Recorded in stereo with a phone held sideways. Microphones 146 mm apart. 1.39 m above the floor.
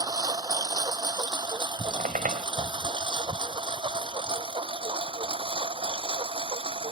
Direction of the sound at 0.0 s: 25° right (ahead or behind).